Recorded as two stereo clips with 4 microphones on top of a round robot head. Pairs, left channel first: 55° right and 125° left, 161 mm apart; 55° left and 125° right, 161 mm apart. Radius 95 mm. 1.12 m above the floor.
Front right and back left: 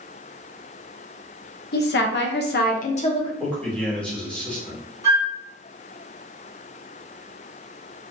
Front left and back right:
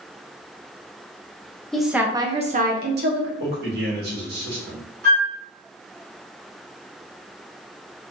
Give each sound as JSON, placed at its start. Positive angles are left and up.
{"t": 1.7, "sound": "a woman speaking", "azimuth_deg": -30, "distance_m": 1.1}
{"t": 3.4, "sound": "a man speaking", "azimuth_deg": -140, "distance_m": 2.0}
{"t": 5.0, "sound": "a flute", "azimuth_deg": -165, "distance_m": 1.8}